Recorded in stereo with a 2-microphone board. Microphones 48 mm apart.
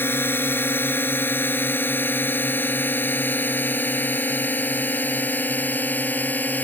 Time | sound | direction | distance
0.0 | a drone | 50° left (ahead or behind) | ?